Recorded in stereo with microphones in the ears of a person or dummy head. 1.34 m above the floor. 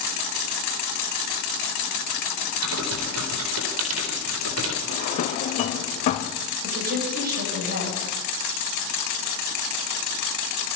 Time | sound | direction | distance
2.6 | typing on a keyboard | 85° right | 4 m
4.9 | a drawer | 35° left (ahead or behind) | 1.6 m
6.6 | a woman speaking | 55° right (ahead or behind) | 8.5 m